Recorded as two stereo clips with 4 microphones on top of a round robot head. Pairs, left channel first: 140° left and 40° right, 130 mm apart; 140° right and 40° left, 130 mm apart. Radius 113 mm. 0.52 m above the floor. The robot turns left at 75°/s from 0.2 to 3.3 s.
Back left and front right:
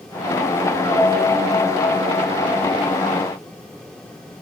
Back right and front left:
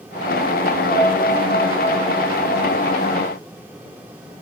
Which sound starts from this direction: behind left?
A piano, at 0.9 s.